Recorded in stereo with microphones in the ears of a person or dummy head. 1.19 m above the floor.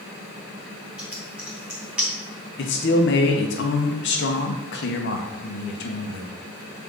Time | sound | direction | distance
1.0 | typing on a keyboard | 5° right (ahead or behind) | 1.3 m
2.6 | a man speaking | 55° left (ahead or behind) | 1.0 m